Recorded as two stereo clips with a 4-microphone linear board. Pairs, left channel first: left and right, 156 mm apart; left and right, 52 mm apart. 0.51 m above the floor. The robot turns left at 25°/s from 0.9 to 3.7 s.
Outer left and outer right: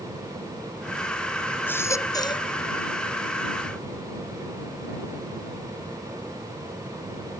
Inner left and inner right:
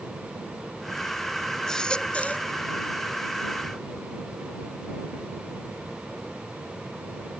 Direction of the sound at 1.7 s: 10° left (ahead or behind).